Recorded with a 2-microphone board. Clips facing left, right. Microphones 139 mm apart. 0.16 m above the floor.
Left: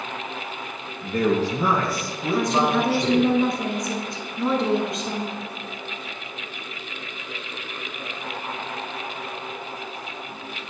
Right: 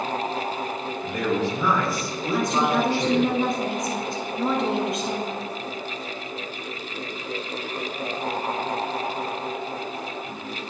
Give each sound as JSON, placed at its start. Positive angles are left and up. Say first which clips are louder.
{"t": 1.0, "sound": "a man speaking", "louder": "left 4 dB", "side_deg": 45, "distance_m": 1.9}
{"t": 2.3, "sound": "a woman speaking", "louder": "left 1 dB", "side_deg": 0, "distance_m": 1.7}